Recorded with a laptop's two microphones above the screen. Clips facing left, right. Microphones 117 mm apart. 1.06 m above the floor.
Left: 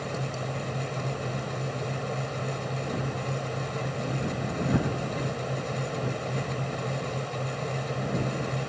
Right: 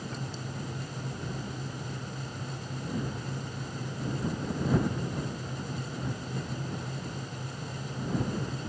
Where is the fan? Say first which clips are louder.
Left 6 dB; 85° left.